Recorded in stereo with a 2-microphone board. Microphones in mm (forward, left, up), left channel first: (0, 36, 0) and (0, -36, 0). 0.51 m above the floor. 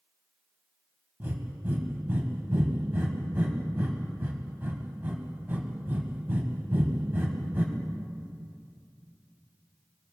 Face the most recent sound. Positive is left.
turn(degrees=-30)  # may be behind; listen again after turning